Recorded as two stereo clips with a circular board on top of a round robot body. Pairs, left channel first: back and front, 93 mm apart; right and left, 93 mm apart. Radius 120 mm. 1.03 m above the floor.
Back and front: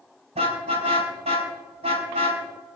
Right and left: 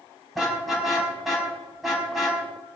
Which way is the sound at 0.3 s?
5° left.